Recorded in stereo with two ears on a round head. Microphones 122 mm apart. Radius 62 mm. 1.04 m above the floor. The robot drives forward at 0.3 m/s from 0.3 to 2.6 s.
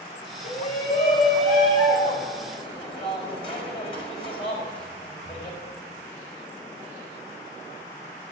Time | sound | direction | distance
0.4 | a shout | 45° left (ahead or behind) | 4.5 m